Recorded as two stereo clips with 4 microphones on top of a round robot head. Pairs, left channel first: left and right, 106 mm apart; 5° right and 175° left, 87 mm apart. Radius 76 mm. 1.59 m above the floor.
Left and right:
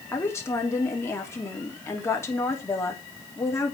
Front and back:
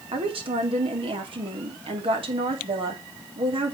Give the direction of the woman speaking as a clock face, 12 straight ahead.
7 o'clock.